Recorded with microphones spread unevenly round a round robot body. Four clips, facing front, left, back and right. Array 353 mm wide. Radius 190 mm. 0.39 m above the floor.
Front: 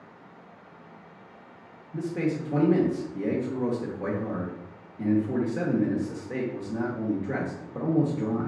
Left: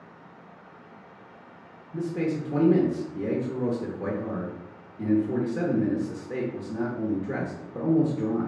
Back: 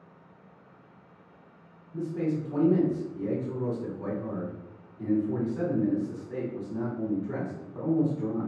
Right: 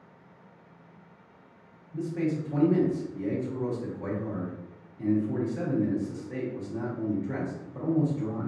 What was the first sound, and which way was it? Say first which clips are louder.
A man speaking: left 2 dB, front 1 dB; 50° left.